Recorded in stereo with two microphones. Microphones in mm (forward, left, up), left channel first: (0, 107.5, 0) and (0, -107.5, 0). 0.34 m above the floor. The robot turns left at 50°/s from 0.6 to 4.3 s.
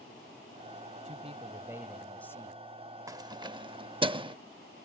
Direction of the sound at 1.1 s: 130° right.